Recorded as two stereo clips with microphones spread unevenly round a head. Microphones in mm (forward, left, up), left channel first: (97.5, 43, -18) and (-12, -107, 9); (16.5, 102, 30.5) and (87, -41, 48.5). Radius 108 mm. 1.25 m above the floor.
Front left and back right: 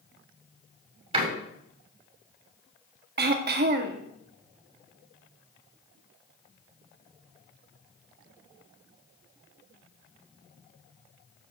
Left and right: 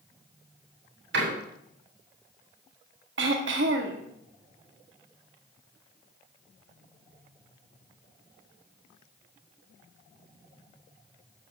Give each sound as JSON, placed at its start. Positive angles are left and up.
{"t": 1.1, "sound": "a door slam", "azimuth_deg": -65, "distance_m": 6.0}
{"t": 3.2, "sound": "throat clearing", "azimuth_deg": -95, "distance_m": 1.6}